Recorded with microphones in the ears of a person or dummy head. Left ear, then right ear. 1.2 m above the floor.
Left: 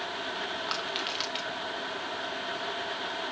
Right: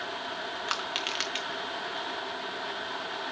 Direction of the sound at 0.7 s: 30° right (ahead or behind).